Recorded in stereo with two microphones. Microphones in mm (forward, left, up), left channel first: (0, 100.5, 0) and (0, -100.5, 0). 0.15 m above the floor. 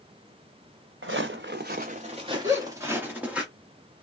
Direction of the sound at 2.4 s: 15° right (ahead or behind).